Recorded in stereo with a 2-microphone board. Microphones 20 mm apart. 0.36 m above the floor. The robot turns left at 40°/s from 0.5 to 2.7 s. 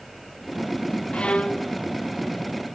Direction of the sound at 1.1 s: 85° left.